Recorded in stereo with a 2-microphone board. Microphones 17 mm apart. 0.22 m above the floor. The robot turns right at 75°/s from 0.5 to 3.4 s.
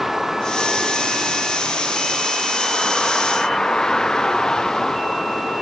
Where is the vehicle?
175° right; by 5.6 s 45° left.